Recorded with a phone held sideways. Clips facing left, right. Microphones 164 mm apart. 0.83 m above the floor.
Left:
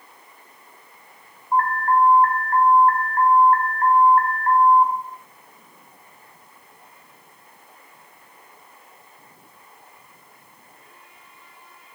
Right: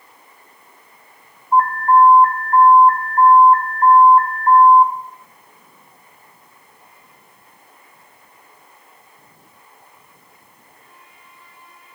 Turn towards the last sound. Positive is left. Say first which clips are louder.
# right 6 dB
turn(degrees=75)  # may be behind; listen again after turning